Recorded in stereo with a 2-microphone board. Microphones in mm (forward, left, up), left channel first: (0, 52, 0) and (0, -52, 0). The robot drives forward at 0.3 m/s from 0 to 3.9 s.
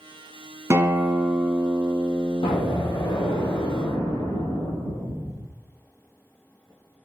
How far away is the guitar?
About 0.5 m.